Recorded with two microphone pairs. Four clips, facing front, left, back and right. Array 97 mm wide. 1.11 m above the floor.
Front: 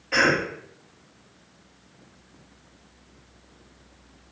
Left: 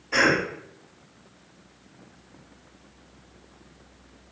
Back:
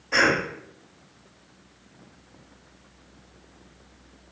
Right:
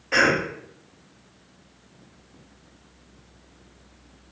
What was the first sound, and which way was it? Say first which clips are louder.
A cough: right 1 dB, even; 90° right.